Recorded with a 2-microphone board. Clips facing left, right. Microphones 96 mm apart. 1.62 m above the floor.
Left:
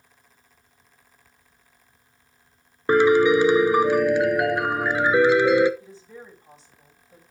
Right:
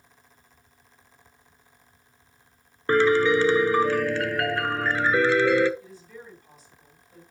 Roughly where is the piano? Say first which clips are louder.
Left 3 dB; centre.